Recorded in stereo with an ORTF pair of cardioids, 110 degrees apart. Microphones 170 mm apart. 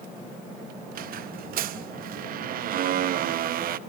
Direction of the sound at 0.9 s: 60° right.